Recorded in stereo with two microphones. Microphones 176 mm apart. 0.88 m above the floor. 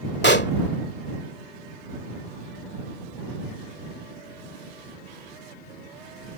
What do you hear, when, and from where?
0.2 s a pop: 85° left